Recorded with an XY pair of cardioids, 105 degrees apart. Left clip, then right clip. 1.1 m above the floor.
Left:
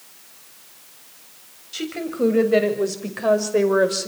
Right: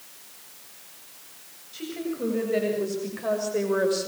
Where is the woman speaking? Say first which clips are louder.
Left 6 dB; 65° left, 8 m; by 4.1 s 40° left, 5.5 m.